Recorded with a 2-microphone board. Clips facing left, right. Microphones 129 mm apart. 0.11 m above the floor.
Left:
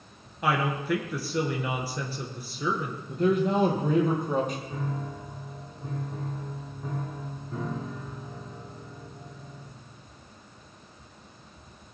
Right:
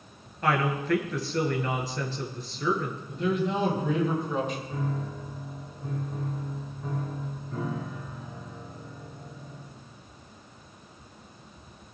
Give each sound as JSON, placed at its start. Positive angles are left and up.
{"t": 0.4, "sound": "a woman speaking", "side_deg": 10, "distance_m": 1.8}
{"t": 3.1, "sound": "a man speaking", "side_deg": 45, "distance_m": 3.0}
{"t": 4.7, "sound": "a piano", "side_deg": 20, "distance_m": 5.5}